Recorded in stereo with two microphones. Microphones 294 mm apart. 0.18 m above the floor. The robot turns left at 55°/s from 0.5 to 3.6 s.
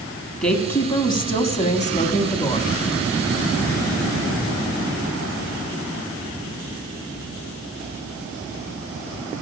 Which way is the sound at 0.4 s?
5° left (ahead or behind).